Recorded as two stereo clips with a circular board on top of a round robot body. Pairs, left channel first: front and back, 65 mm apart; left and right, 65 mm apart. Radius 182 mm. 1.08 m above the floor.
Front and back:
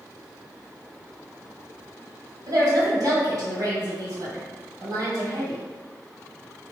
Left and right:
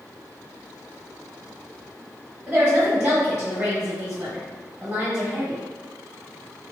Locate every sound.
2.5 s a woman speaking: 145° right, 1.8 m